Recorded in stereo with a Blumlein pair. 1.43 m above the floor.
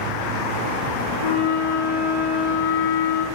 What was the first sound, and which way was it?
A flute, 50° left.